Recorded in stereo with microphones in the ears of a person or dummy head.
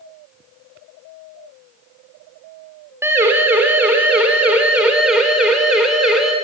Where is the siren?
15° right (ahead or behind), 5.5 m; by 6.3 s centre (ahead or behind), 6.5 m.